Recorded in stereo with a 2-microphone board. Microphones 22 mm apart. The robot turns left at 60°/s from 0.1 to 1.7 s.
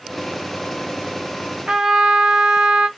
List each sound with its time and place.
1.7 s a trumpet: 65° right (ahead or behind), 1.2 m